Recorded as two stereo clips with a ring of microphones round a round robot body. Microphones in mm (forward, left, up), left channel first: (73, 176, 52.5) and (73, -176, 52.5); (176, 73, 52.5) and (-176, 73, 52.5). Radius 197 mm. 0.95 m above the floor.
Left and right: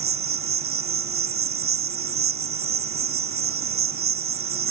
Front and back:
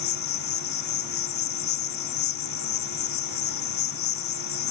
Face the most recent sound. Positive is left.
turn(degrees=-40)